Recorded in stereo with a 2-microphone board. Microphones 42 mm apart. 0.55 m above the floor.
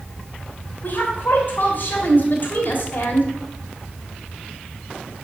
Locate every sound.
0.8 s a woman speaking: 45° left (ahead or behind), 3.5 m